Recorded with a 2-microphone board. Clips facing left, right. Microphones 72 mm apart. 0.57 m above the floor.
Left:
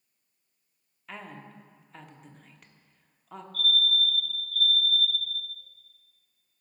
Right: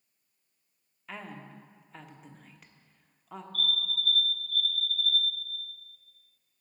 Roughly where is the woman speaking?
Centre.